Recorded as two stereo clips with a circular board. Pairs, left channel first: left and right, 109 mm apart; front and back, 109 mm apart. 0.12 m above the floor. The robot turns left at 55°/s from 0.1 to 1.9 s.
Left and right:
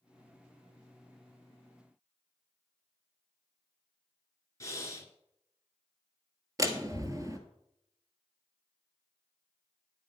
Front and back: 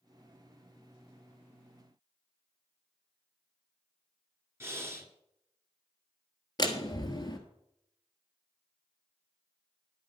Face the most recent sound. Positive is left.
turn(degrees=-40)